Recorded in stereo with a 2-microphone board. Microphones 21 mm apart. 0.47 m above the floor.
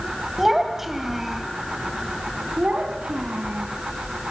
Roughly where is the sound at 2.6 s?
Right.